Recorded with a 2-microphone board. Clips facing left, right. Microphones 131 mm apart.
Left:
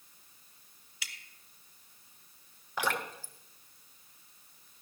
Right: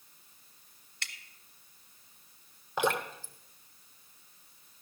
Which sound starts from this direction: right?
Dripping, at 2.8 s.